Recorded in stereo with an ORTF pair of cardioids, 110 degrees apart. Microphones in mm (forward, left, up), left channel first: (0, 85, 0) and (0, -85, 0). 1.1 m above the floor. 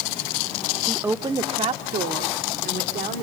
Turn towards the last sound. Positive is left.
turn(degrees=-70)